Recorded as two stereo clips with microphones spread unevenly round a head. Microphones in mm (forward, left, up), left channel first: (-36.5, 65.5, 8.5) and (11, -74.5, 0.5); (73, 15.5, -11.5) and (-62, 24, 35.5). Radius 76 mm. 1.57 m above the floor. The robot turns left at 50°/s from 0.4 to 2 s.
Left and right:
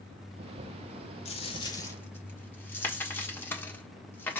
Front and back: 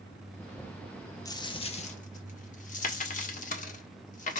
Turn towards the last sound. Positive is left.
turn(degrees=40)